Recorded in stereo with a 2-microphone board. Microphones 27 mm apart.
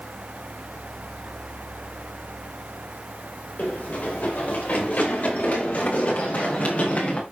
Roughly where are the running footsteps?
Left.